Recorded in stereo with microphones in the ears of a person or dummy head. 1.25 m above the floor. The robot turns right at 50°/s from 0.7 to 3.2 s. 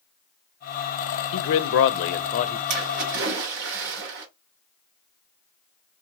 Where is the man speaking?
80° left, 0.6 m; by 2.6 s 145° left, 0.6 m.